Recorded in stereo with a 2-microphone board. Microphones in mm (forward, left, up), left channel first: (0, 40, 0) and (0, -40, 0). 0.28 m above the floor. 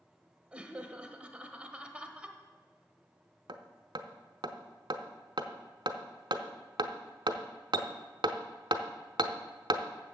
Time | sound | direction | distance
0.5 | laughter | 15° right (ahead or behind) | 0.9 m
3.5 | hammering | 70° right (ahead or behind) | 0.7 m